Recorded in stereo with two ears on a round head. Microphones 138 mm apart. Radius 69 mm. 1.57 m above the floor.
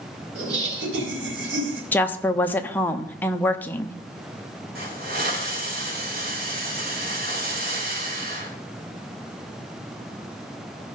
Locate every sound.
0.3 s laughter: 85° right, 5 m
1.9 s a woman speaking: 10° left (ahead or behind), 0.7 m
4.8 s a hiss: 65° right (ahead or behind), 4 m